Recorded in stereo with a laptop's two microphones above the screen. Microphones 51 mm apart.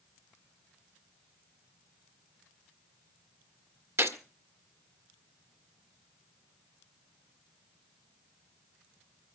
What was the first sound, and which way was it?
A gunshot, 60° right (ahead or behind).